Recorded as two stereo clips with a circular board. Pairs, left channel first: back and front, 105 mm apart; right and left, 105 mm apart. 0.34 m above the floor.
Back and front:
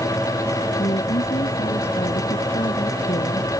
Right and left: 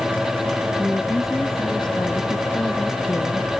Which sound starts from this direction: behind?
A woman speaking, at 0.8 s.